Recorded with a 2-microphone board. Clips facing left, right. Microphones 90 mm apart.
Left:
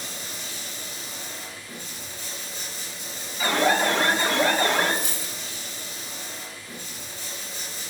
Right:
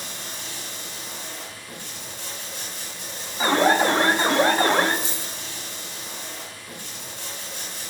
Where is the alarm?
35° right (ahead or behind), 0.6 m.